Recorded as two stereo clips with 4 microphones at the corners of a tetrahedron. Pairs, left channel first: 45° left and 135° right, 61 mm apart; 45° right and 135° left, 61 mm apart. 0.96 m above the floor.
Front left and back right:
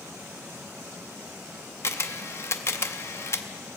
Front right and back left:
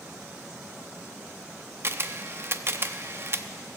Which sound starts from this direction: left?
A camera shutter, at 1.8 s.